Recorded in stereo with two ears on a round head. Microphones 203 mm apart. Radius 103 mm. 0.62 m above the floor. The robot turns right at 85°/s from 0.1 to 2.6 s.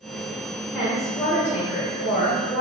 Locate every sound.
0.7 s a woman speaking: straight ahead, 1.9 m; by 2.6 s 160° left, 1.9 m